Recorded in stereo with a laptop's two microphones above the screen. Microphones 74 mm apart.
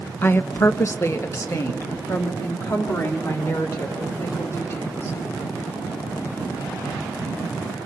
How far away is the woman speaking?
About 0.6 m.